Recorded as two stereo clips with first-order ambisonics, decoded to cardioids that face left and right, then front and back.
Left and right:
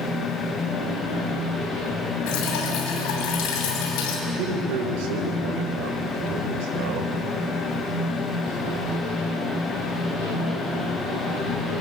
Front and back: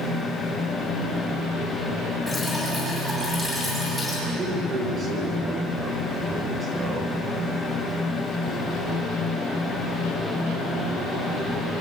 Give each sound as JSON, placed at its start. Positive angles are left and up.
{"t": 2.3, "sound": "dripping", "azimuth_deg": 90, "distance_m": 8.0}
{"t": 4.3, "sound": "a man speaking", "azimuth_deg": -110, "distance_m": 4.5}